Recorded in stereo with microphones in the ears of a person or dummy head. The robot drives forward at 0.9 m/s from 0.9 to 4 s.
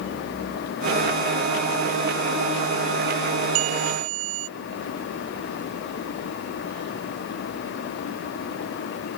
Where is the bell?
90° right; by 4.5 s 85° right.